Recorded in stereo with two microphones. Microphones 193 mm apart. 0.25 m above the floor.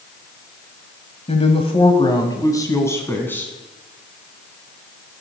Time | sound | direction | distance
1.3 | a woman speaking | 35° left (ahead or behind) | 1.3 m